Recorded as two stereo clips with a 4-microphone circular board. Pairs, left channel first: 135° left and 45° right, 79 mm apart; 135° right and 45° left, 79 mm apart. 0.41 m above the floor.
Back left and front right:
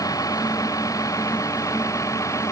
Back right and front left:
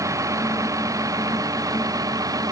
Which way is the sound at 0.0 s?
90° left.